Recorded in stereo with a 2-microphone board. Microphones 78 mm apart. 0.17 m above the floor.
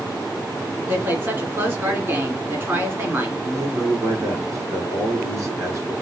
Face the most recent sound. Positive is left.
turn(degrees=-45)  # may be behind; listen again after turning